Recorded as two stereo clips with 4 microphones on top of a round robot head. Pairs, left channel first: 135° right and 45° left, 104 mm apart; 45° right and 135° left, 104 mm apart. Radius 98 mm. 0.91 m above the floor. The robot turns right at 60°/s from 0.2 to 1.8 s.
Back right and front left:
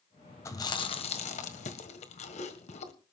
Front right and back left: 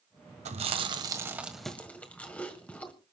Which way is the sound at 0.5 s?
155° left.